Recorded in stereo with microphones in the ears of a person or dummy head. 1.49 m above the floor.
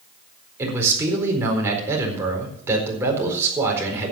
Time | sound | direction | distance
0.6 | a man speaking | 15° right (ahead or behind) | 4.5 m